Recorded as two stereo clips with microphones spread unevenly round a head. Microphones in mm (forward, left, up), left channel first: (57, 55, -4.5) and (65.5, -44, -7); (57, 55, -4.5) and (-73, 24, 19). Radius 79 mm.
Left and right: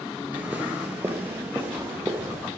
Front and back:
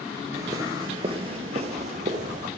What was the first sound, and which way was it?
Footsteps, 150° right.